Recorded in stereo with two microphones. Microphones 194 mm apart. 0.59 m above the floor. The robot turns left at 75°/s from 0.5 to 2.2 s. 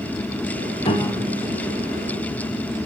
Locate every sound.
0.8 s a piano: 40° left, 0.8 m; by 1.6 s 15° right, 0.8 m